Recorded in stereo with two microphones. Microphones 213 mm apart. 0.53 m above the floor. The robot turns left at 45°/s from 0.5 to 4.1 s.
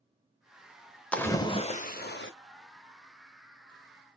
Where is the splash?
175° left, 0.6 m; by 2.3 s 120° left, 0.6 m.